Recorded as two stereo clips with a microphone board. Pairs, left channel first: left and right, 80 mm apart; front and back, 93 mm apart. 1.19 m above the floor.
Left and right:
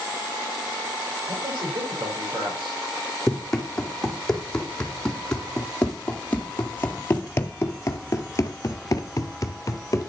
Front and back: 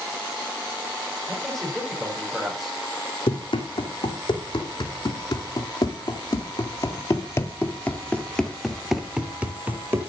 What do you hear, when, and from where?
1.3 s a man speaking: 90° right, 6 m
3.3 s running footsteps: 5° left, 3.5 m; by 10.1 s 125° left, 1.8 m